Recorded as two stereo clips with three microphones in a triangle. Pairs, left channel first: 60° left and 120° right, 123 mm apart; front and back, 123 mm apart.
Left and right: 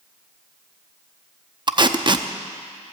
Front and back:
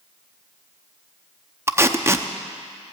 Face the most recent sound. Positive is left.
turn(degrees=-130)